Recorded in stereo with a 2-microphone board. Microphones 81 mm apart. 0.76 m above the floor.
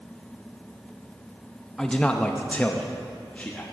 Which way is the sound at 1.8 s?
10° left (ahead or behind).